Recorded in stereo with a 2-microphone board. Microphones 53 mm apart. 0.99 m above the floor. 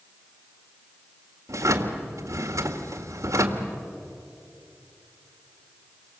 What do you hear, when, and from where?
1.5 s a drawer: 80° right, 1.8 m